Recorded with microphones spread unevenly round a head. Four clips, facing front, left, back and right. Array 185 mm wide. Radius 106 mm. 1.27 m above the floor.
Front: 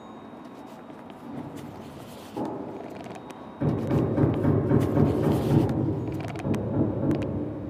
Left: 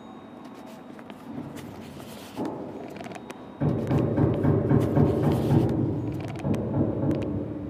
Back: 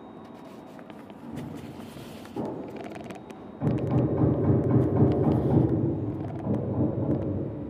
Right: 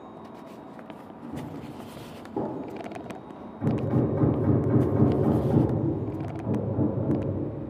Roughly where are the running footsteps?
Behind.